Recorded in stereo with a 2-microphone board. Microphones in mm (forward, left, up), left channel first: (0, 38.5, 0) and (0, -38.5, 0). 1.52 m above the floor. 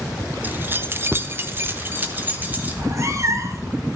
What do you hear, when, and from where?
0.4 s keys jangling: 25° right (ahead or behind), 0.6 m; by 2.8 s 20° right (ahead or behind), 1.5 m
2.7 s a cat meowing: 40° right (ahead or behind), 1.0 m